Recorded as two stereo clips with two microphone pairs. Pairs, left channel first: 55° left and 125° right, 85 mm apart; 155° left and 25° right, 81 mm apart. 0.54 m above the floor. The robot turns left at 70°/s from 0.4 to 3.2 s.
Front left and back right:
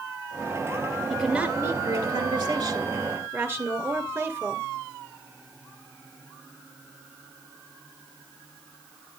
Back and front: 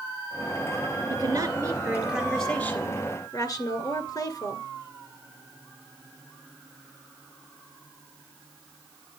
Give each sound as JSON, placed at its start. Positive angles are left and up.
{"t": 1.1, "sound": "a woman speaking", "azimuth_deg": -35, "distance_m": 2.0}